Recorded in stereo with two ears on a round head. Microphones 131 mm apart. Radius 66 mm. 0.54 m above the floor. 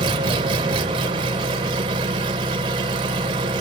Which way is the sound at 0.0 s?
30° right (ahead or behind).